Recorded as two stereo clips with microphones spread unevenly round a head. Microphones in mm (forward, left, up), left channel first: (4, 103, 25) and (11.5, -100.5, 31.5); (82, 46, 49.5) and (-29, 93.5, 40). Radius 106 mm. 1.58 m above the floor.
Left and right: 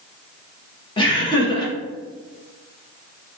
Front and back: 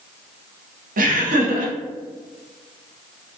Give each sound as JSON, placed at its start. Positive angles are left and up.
{"t": 1.0, "sound": "laughter", "azimuth_deg": 160, "distance_m": 0.9}